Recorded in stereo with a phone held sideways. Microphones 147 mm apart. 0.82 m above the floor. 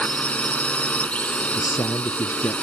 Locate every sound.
0.0 s a drone: 10° left (ahead or behind)
1.6 s a man speaking: 25° left (ahead or behind)